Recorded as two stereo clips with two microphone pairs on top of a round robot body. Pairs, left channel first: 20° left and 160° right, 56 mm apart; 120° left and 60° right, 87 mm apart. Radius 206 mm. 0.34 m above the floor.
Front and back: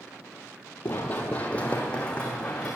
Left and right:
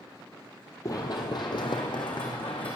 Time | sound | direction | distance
0.8 | running footsteps | 70° left | 0.5 m